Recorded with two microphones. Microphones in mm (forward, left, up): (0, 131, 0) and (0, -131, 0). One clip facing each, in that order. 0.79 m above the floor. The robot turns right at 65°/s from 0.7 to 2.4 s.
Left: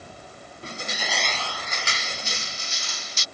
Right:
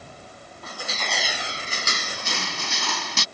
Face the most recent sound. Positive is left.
turn(degrees=-100)